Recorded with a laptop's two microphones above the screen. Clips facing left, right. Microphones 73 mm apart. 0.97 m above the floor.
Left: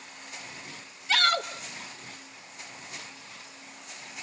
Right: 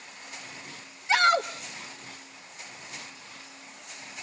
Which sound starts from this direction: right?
A shout, at 1.1 s.